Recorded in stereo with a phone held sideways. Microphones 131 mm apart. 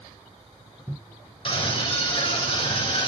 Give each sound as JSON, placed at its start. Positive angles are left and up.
{"t": 1.4, "sound": "a scream", "side_deg": 45, "distance_m": 7.0}